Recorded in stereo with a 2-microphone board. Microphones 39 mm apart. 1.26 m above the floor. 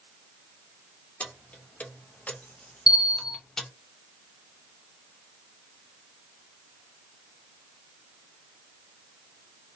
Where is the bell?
20° right (ahead or behind), 0.6 m.